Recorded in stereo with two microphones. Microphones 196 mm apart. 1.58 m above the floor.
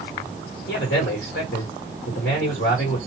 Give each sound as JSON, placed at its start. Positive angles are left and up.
{"t": 0.7, "sound": "a man speaking", "side_deg": 65, "distance_m": 1.7}